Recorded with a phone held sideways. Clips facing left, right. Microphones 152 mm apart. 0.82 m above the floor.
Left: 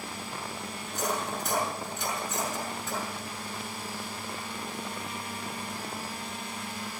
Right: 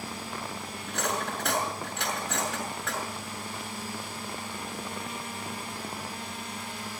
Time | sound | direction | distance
0.9 | cutlery clinking | 75° right (ahead or behind) | 5 m